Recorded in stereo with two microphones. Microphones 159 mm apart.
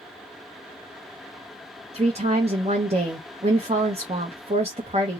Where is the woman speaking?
40° right (ahead or behind), 0.7 m.